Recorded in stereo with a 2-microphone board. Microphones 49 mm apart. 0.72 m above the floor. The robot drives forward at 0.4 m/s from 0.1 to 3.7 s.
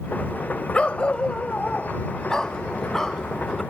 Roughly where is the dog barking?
Left.